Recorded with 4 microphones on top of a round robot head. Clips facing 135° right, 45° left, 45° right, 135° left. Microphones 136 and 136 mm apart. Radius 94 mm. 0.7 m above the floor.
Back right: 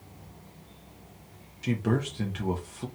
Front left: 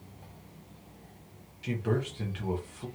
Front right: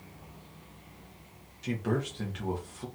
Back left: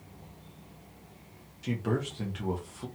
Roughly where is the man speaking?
Behind right.